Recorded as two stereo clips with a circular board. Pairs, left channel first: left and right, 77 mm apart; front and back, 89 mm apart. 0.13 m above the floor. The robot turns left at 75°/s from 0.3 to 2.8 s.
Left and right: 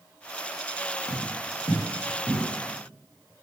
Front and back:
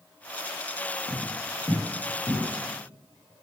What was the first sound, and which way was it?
Footsteps, 115° left.